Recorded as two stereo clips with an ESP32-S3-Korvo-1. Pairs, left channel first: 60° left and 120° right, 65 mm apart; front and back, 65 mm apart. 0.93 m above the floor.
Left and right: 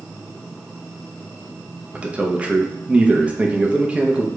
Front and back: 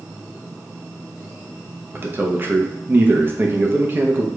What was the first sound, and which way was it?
A man speaking, 170° right.